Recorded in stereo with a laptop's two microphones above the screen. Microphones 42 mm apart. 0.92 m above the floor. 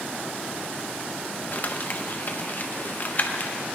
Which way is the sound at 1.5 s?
45° left (ahead or behind).